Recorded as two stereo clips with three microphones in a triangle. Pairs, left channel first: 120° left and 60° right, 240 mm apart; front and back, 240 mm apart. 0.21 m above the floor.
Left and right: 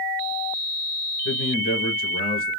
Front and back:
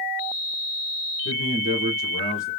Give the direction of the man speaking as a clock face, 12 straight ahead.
8 o'clock.